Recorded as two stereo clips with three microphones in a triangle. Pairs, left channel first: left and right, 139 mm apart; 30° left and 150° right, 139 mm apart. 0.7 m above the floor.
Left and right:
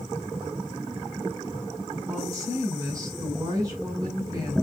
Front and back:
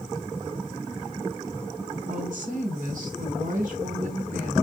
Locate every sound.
2.1 s a woman speaking: 155° right, 4.5 m